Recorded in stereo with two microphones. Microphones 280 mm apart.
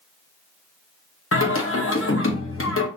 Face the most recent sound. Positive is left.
turn(degrees=50)  # may be behind; listen again after turning